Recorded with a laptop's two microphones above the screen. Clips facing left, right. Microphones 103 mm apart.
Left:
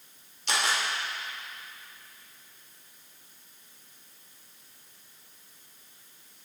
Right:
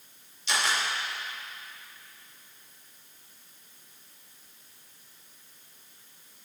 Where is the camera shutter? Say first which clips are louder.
Even; 60° left (ahead or behind), 1.6 m.